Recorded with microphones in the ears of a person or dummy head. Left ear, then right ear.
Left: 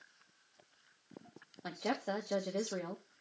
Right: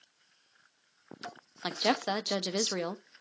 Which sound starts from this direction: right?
A woman speaking, at 1.6 s.